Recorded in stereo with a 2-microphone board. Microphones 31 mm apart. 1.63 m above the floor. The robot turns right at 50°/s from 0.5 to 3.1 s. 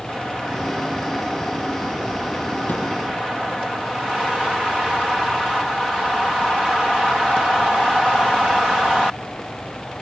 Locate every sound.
2.7 s a thud: 75° left (ahead or behind), 8.5 m; by 2.9 s 80° left, 8.5 m